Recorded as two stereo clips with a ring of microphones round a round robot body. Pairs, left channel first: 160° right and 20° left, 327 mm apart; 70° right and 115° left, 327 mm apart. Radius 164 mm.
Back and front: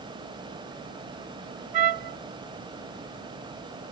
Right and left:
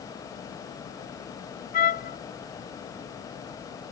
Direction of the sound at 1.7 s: Straight ahead.